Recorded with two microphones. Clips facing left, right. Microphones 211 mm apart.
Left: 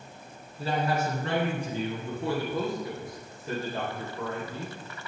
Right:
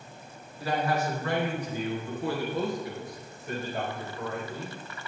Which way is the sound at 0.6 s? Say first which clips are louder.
Even; 30° left (ahead or behind).